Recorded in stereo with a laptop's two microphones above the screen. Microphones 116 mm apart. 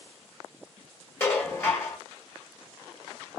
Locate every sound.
1.2 s dishes clattering: 20° left (ahead or behind), 1.2 m